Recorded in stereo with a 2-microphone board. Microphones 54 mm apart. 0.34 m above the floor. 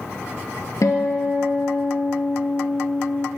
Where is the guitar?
70° left (ahead or behind), 0.9 m.